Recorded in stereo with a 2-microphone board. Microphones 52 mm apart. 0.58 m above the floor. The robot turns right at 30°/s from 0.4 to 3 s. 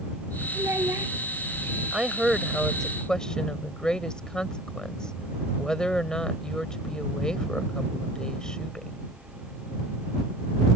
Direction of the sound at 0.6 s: 70° right (ahead or behind).